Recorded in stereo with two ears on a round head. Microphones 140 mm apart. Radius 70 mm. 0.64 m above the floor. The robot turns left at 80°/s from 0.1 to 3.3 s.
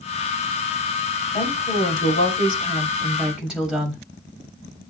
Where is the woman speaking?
150° left, 3.5 m; by 4.0 s 5° right, 3.5 m.